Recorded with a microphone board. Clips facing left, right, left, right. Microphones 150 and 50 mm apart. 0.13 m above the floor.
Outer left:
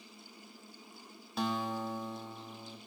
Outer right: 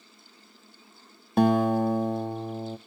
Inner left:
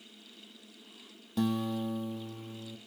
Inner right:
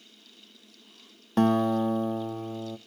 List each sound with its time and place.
1.4 s a guitar: 55° right (ahead or behind), 0.7 m